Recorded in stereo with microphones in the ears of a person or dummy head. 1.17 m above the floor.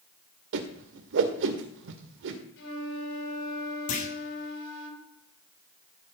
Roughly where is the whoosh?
Right.